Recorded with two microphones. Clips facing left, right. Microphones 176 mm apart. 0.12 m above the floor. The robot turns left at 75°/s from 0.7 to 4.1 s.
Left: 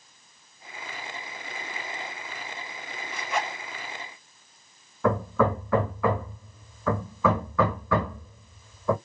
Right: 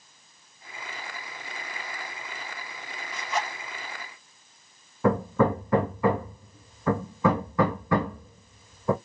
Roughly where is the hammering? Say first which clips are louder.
Right 1 dB; centre.